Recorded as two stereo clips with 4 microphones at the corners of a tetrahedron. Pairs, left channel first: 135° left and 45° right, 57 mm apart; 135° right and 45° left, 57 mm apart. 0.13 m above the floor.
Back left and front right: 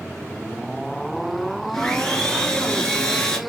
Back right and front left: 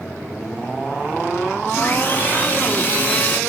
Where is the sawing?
155° right, 1.2 m.